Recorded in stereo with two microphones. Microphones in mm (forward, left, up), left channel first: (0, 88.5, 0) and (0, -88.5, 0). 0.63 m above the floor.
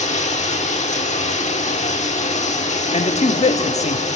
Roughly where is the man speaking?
Left.